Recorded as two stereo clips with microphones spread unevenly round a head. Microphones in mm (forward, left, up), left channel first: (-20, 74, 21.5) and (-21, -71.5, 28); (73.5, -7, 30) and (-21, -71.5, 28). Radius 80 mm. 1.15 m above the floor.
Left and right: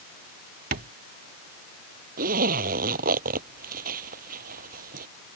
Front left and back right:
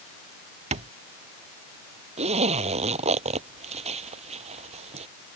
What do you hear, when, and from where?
0.7 s tapping: 120° right
2.2 s a zipper: 120° right